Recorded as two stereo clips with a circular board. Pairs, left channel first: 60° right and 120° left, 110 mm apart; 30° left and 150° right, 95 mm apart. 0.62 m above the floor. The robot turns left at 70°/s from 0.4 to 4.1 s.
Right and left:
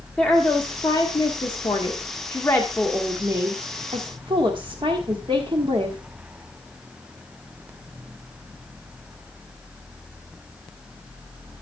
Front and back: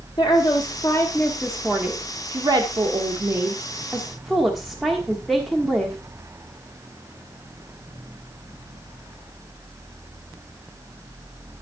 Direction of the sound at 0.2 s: 20° left.